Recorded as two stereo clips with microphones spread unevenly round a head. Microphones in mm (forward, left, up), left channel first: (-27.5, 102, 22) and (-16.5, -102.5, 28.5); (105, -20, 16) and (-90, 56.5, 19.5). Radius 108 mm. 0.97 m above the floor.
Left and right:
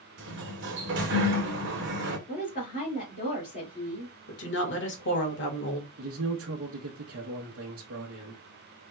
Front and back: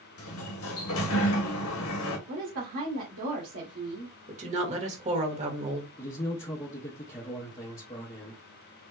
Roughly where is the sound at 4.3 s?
Left.